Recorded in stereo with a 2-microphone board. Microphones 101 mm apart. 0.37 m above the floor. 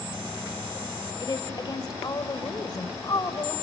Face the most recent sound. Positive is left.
turn(degrees=45)  # may be behind; listen again after turning